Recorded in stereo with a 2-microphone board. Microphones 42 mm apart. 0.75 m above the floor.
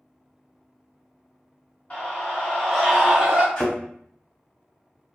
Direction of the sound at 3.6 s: 15° left (ahead or behind).